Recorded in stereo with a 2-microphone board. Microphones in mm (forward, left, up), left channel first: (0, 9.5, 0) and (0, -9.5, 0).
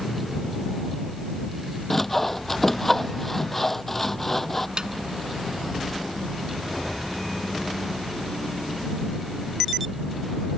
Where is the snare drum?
45° right (ahead or behind).